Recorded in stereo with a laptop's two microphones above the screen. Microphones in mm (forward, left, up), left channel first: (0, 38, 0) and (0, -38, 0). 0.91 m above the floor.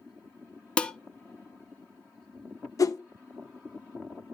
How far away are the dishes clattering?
About 0.5 m.